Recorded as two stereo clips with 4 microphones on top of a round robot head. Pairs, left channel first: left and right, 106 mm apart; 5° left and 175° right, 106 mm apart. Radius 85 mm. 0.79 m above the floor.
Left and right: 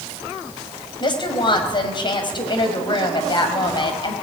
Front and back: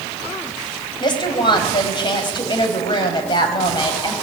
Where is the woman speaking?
45° left, 5 m.